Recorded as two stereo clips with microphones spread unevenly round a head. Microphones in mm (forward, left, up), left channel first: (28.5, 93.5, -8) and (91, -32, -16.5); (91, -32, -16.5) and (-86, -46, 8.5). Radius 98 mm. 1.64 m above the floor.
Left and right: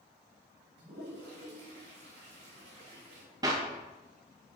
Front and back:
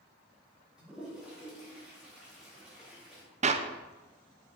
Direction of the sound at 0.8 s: 90° right.